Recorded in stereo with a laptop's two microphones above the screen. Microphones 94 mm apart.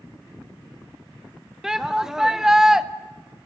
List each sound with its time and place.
1.6 s a shout: 5° right (ahead or behind), 0.6 m